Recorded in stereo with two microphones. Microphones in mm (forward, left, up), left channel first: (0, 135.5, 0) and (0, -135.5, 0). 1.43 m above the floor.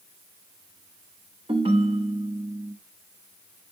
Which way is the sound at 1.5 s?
20° right (ahead or behind).